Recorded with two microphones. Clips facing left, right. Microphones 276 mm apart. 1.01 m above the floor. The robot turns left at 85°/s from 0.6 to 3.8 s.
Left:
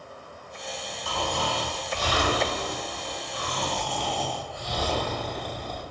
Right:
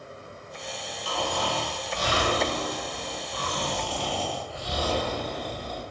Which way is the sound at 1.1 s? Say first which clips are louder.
Right 1 dB; 60° left.